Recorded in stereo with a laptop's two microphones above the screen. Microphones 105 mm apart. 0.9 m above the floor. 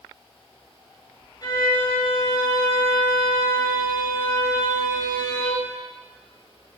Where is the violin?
40° left (ahead or behind), 3.5 m.